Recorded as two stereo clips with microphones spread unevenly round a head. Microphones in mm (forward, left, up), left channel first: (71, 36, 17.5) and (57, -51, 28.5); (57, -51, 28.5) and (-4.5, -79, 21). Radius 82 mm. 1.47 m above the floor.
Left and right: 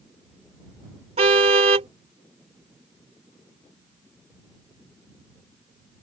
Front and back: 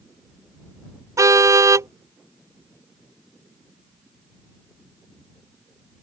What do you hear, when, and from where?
1.2 s a car horn: 115° right